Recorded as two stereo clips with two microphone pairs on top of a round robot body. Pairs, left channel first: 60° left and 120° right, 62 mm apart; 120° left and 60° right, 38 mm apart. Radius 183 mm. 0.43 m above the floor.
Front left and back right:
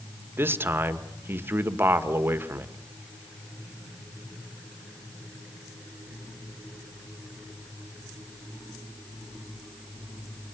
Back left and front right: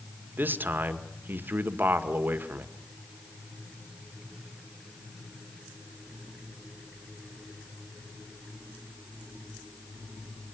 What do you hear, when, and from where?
0.4 s a man speaking: 85° right, 1.9 m